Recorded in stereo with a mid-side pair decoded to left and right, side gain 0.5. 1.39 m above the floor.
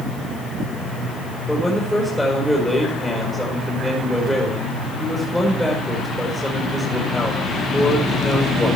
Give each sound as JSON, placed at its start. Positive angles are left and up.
{"t": 1.5, "sound": "a man speaking", "azimuth_deg": 5, "distance_m": 4.5}